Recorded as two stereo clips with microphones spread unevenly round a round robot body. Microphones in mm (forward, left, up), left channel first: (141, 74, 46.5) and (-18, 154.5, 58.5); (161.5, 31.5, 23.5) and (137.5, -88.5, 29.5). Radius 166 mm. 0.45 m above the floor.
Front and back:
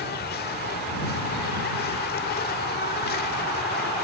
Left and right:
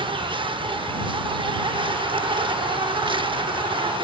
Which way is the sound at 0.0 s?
50° right.